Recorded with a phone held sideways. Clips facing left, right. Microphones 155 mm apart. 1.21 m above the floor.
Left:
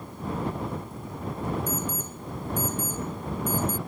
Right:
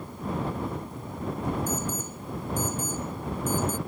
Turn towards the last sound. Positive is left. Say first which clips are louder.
# even
turn(degrees=-10)  # may be behind; listen again after turning